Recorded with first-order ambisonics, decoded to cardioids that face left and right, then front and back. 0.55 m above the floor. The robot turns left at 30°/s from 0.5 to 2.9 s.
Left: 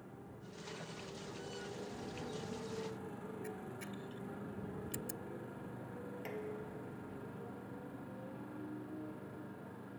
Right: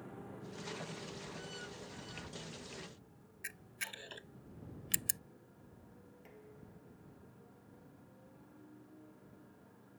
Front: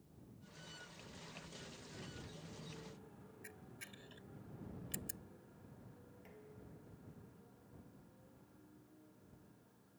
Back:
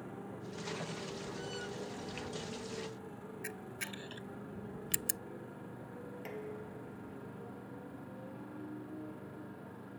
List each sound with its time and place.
0.0 s a motorcycle: 165° right; by 10.0 s 145° left
3.4 s a camera shutter: 135° right
6.2 s dishes clattering: 140° left